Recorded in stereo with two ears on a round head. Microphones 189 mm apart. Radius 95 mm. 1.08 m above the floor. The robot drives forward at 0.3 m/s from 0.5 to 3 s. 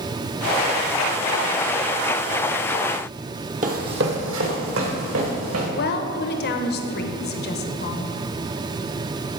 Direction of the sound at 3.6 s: 40° right (ahead or behind).